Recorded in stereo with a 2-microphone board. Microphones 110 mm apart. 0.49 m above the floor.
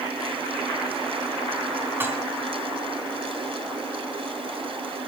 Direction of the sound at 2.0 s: 20° right (ahead or behind).